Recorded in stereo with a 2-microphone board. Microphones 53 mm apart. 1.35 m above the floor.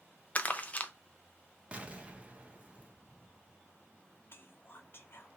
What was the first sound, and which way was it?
Crumpling, 30° left (ahead or behind).